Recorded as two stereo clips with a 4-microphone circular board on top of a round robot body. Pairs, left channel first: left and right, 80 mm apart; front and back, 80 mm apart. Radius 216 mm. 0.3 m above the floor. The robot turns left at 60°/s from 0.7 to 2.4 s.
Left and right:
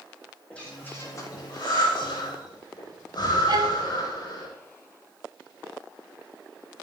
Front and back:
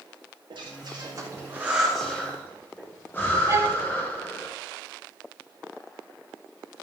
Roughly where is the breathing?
Behind.